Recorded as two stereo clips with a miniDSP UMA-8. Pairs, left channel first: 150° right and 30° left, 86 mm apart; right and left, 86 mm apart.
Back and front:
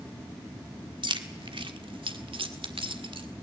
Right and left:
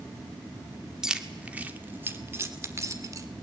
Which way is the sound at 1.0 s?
10° left.